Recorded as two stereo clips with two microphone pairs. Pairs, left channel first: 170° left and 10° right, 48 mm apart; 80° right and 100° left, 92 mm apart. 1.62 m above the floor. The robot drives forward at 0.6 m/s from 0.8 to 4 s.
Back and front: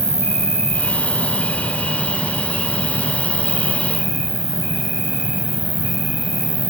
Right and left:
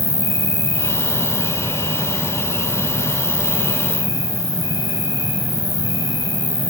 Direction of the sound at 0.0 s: 120° left.